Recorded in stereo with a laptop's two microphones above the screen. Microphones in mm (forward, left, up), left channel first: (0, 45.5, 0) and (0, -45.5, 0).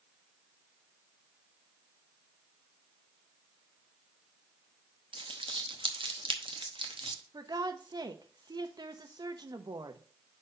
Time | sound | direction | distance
5.1 | crumpling | 70° right (ahead or behind) | 0.8 m
7.3 | a woman speaking | 50° right (ahead or behind) | 0.9 m